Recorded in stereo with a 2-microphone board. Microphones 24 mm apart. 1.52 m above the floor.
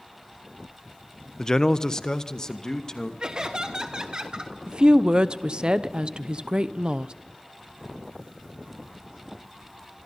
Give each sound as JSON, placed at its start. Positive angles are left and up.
{"t": 1.4, "sound": "a man speaking", "side_deg": 25, "distance_m": 0.6}
{"t": 3.2, "sound": "laughter", "side_deg": -40, "distance_m": 1.1}
{"t": 4.7, "sound": "a woman speaking", "side_deg": -40, "distance_m": 0.9}